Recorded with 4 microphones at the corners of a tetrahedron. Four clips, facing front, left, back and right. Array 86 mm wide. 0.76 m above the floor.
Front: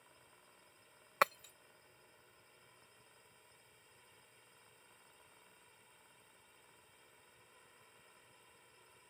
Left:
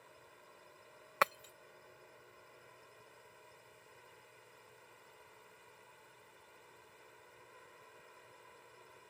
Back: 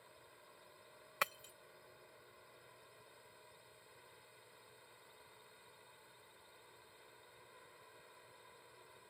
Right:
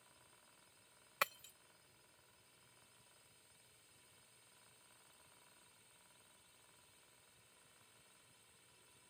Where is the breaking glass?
45° left.